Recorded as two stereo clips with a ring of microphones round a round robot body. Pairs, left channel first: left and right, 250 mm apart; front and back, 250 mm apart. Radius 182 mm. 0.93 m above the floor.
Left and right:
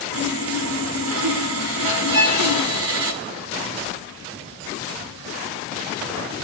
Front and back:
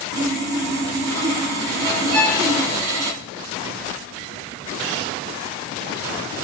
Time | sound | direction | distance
0.1 | sawing | 145° right | 1.5 m
2.1 | a violin | 145° right | 6.5 m